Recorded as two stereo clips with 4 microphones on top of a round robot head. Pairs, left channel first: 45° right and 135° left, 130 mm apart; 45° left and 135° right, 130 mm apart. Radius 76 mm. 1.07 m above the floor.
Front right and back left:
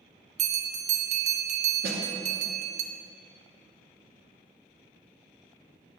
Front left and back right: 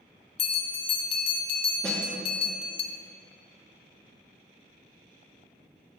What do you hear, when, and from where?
0.4 s a bell: 95° left, 0.6 m
1.8 s a snare drum: 130° left, 0.9 m